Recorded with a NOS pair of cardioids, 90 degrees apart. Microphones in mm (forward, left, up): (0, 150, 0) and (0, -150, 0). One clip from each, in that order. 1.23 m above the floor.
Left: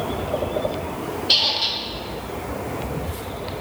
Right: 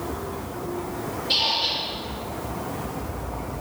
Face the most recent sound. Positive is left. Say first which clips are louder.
# left 3 dB
turn(degrees=65)